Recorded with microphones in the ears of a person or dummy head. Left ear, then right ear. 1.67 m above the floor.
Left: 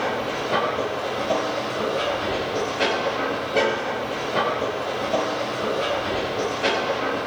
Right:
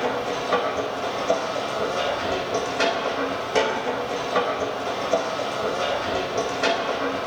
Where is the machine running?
70° right (ahead or behind), 5.5 m.